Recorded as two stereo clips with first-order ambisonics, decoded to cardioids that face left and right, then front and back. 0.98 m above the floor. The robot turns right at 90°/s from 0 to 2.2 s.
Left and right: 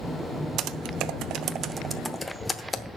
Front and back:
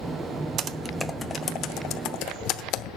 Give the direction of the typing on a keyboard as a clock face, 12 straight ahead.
4 o'clock.